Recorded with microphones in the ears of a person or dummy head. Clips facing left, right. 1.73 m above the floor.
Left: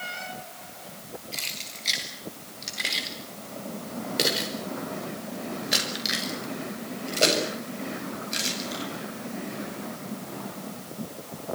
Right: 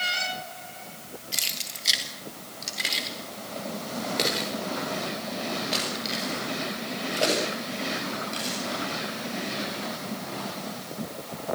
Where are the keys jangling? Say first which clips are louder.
Even; 20° right (ahead or behind), 3 m; by 8.8 s 30° left (ahead or behind), 8 m.